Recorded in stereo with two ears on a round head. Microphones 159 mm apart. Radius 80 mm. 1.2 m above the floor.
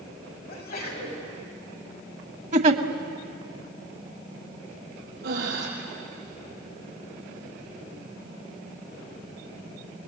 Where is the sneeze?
55° left (ahead or behind), 8 m.